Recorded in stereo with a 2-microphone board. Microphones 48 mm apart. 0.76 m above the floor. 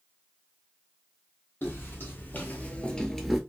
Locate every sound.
1.6 s footsteps: 45° left (ahead or behind), 1.4 m; by 3.4 s 5° right (ahead or behind), 0.7 m